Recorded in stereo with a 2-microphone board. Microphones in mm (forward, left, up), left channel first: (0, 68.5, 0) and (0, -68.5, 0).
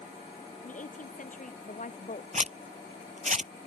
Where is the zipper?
70° right (ahead or behind).